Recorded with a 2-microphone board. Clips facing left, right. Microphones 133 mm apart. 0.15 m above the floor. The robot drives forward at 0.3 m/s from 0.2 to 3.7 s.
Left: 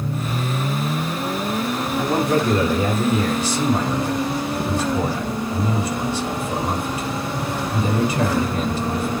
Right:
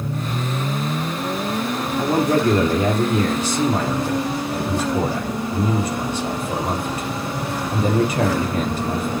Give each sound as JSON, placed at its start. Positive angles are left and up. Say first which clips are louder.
{"t": 2.0, "sound": "a man speaking", "louder": "right 2 dB", "side_deg": -65, "distance_m": 3.5}